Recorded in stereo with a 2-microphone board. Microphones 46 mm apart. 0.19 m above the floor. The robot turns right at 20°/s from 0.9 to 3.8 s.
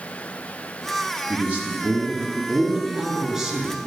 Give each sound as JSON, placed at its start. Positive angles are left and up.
{"t": 1.3, "sound": "a man speaking", "side_deg": -35, "distance_m": 1.9}